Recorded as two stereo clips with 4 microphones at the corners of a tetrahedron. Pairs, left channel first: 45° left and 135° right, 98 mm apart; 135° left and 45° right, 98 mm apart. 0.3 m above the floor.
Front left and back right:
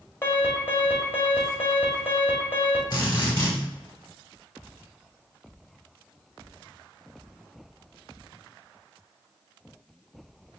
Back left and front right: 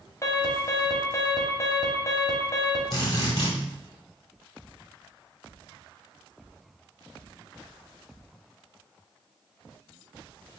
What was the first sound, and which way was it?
An alarm, 95° left.